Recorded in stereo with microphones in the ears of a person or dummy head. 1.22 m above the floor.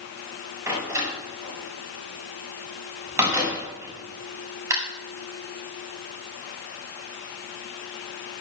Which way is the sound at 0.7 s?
15° right (ahead or behind).